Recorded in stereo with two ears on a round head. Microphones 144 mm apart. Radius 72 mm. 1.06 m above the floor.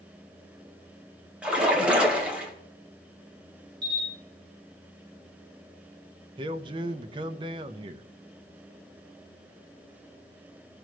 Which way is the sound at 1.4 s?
5° right (ahead or behind).